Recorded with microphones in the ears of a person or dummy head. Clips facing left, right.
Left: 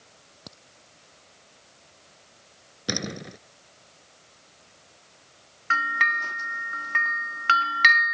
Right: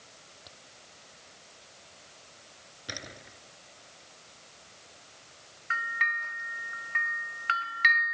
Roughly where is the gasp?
No gasp in this recording.